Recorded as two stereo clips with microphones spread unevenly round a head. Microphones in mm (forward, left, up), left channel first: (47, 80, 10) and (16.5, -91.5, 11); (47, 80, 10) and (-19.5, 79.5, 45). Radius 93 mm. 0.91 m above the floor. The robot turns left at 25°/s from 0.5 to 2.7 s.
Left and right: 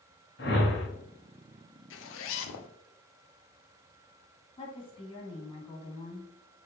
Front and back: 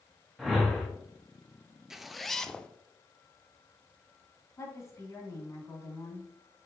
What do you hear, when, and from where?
0.4 s a whoosh: 105° left, 1.3 m; by 0.9 s 100° left, 1.3 m
1.9 s a zipper: 105° left, 0.5 m; by 2.7 s 85° left, 0.5 m
4.6 s a woman speaking: 25° left, 2 m